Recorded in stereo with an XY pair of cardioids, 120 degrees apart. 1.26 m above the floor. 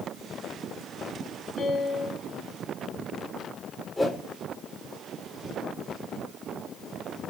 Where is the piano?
45° left, 6 m.